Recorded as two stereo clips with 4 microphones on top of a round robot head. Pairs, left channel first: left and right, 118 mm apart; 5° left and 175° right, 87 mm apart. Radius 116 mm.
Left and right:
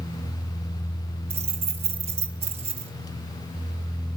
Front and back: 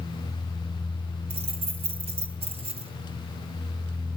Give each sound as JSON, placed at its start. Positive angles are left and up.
{"t": 1.3, "sound": "keys jangling", "azimuth_deg": -140, "distance_m": 0.8}